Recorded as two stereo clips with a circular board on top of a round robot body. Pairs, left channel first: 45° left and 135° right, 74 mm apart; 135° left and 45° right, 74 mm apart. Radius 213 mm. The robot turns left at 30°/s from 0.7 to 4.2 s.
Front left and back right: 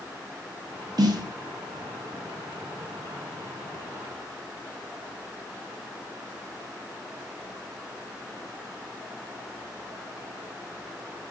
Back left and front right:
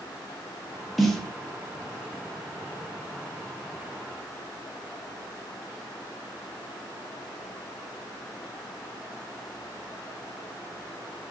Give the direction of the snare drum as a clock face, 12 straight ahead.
4 o'clock.